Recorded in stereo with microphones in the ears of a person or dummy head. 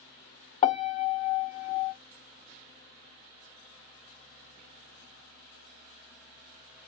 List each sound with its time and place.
0.6 s a piano: 35° left (ahead or behind), 0.7 m